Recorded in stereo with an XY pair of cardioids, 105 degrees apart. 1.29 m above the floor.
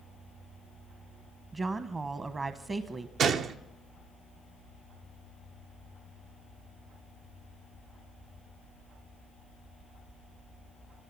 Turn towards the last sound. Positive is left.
turn(degrees=-65)